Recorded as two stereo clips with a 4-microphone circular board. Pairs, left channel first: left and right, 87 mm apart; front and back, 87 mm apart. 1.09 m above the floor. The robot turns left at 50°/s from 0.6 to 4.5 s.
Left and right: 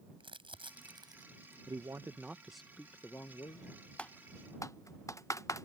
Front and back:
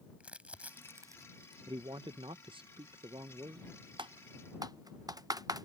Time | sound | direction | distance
0.2 | crumpling | 105° right | ?
1.7 | a man speaking | 135° right | ?
4.0 | typing on a keyboard | 165° left | ?